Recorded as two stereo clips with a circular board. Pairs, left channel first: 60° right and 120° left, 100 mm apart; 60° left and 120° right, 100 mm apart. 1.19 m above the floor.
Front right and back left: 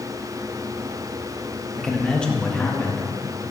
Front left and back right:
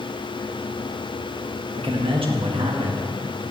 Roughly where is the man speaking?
Behind right.